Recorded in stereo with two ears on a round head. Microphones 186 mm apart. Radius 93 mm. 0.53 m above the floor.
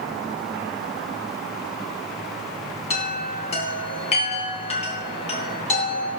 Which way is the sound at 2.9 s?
30° left (ahead or behind).